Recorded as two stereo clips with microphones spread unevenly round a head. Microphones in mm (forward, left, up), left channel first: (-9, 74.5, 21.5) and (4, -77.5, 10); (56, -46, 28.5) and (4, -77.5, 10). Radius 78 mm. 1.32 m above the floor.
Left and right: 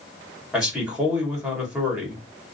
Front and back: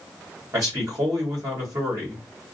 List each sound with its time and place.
0.5 s a man speaking: 170° right, 1.3 m